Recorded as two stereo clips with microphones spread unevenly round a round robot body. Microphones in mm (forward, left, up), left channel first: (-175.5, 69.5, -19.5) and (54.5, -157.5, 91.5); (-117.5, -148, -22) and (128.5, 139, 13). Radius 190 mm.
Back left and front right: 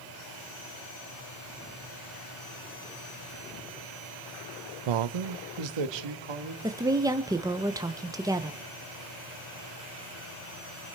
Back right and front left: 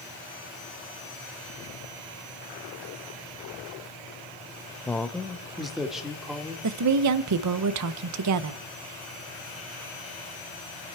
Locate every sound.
4.9 s a man speaking: 50° right, 0.5 m; by 6.5 s 40° right, 2 m
6.6 s a woman speaking: 55° left, 0.6 m